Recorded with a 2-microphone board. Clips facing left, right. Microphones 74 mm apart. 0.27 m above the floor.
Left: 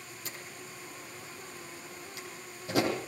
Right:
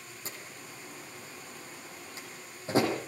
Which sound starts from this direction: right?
A door slam, at 0.2 s.